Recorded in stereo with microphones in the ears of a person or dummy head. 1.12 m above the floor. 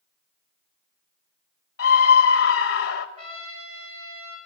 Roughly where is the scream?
Left.